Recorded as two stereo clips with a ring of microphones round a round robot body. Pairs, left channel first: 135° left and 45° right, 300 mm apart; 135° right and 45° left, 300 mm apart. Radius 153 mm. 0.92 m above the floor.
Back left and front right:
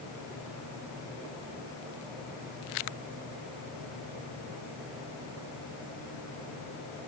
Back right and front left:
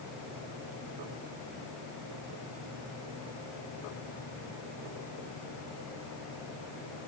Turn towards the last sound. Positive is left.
No sound to turn to.